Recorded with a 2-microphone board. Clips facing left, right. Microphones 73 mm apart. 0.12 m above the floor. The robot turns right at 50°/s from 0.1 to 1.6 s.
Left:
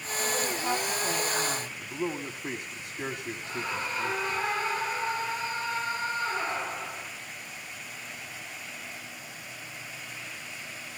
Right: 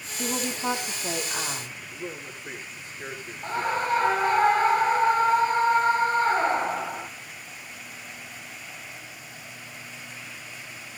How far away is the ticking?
No ticking in this recording.